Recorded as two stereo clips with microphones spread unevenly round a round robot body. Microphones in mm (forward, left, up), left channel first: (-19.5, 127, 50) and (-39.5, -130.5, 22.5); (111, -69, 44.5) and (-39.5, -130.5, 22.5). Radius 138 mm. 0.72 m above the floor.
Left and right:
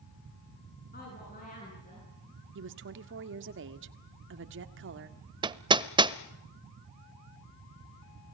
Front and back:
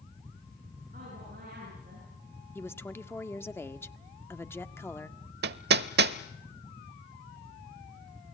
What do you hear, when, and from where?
0.9 s a woman speaking: 140° left, 9.5 m; by 2.1 s 150° left, 10 m
2.5 s a woman speaking: 55° right, 1.7 m
5.4 s hammering: 170° right, 0.6 m